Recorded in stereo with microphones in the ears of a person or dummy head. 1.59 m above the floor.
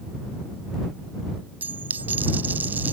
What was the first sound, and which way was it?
A dropped coin, 10° right (ahead or behind).